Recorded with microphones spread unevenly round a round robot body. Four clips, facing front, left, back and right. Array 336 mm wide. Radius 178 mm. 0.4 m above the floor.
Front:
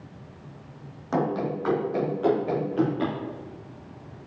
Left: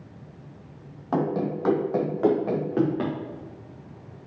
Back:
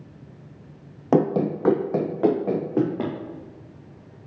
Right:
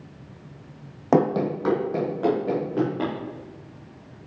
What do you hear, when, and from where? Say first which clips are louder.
1.1 s running footsteps: right 5 dB, back 6 dB; 140° right, 0.6 m; by 3.1 s 165° left, 3 m